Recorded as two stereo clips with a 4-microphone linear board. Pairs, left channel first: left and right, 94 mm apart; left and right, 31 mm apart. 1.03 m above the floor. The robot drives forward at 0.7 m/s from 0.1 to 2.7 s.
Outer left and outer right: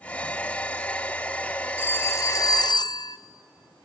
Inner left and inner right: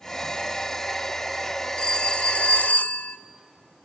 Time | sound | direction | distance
1.8 | a phone ringing | 25° left (ahead or behind) | 1.1 m